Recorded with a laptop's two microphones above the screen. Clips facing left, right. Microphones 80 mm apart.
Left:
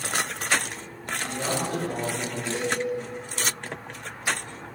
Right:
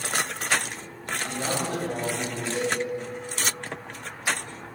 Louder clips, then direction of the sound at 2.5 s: Right 1 dB; 80° left.